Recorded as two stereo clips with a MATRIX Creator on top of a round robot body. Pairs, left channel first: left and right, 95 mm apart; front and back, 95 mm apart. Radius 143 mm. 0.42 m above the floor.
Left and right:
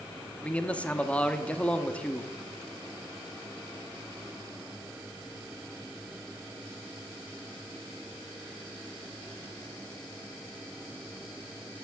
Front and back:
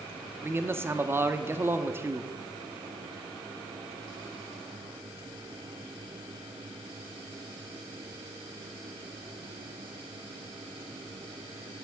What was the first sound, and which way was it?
A man speaking, 150° left.